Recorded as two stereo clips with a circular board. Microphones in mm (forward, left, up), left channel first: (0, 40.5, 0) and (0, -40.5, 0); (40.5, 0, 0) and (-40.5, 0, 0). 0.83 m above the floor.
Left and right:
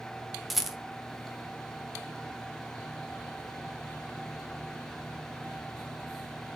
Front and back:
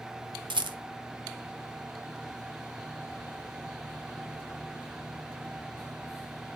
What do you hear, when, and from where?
0.5 s a rattle: straight behind, 1.0 m